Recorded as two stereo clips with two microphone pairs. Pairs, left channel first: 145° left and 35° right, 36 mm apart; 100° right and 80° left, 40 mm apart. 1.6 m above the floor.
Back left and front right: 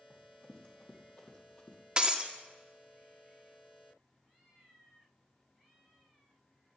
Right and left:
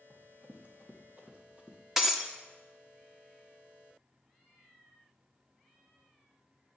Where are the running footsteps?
115° left, 2.5 m.